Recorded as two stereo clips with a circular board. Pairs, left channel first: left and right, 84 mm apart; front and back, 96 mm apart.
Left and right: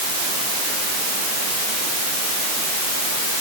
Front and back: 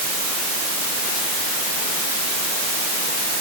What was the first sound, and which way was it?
Only background noise.